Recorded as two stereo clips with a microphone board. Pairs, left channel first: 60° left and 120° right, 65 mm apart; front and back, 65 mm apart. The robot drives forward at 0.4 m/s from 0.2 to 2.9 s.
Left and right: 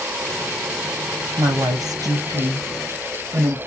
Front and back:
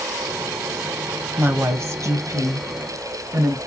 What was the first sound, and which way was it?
A woman speaking, 130° right.